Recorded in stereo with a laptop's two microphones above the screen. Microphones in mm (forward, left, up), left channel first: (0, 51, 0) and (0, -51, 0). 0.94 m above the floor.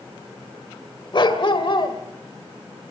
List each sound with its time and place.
1.1 s a dog barking: 50° left (ahead or behind), 1.7 m